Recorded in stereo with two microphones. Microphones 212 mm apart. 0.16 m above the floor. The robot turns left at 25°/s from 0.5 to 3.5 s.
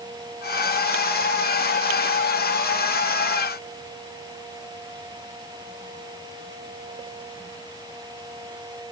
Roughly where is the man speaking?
I don't hear a man speaking.